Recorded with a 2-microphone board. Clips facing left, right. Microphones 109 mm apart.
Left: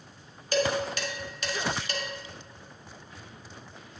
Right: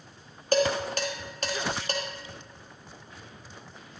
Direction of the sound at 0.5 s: 45° right (ahead or behind).